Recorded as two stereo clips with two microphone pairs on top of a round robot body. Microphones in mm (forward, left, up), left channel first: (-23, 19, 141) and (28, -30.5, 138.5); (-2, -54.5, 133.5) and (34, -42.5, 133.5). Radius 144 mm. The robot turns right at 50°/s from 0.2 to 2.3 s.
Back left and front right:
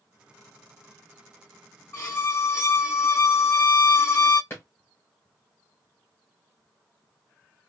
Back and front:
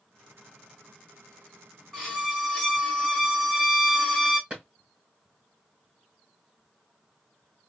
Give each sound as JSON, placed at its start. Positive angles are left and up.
{"t": 1.9, "sound": "a violin", "azimuth_deg": 110, "distance_m": 1.9}
{"t": 4.5, "sound": "a drawer", "azimuth_deg": 80, "distance_m": 1.4}